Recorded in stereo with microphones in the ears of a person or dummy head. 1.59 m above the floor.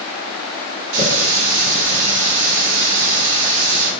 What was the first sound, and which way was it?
A running tap, 65° right (ahead or behind).